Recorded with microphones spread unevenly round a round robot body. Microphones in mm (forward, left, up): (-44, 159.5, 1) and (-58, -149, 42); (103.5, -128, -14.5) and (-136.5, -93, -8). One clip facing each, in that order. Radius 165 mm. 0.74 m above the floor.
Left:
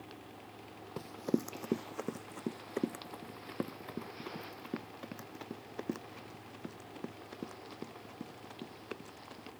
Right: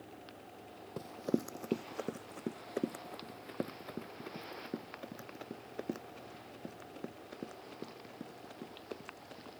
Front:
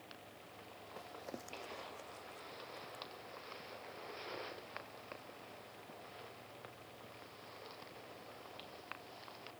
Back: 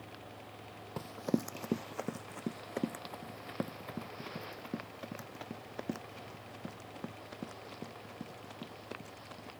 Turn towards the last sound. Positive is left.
turn(degrees=165)